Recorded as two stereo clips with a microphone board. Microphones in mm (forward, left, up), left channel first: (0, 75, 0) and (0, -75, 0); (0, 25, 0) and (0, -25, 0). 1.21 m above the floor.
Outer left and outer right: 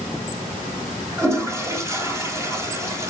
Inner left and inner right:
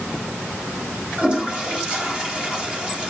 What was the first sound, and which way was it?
A toilet flushing, 20° right (ahead or behind).